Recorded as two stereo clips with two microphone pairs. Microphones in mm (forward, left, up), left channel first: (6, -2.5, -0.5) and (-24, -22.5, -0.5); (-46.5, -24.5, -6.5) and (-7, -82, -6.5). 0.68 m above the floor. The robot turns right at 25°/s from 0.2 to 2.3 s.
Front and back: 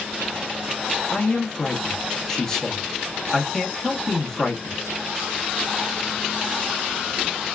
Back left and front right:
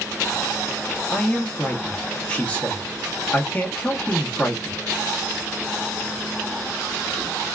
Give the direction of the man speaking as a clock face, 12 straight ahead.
10 o'clock.